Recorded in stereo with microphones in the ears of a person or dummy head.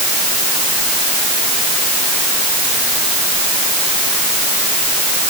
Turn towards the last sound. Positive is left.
No sound to turn to.